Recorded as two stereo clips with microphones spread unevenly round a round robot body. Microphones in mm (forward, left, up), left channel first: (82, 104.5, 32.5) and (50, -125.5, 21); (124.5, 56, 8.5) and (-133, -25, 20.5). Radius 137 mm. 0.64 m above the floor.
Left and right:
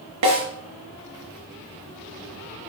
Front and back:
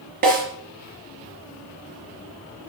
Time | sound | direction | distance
0.2 | a snare drum | 100° right | 4 m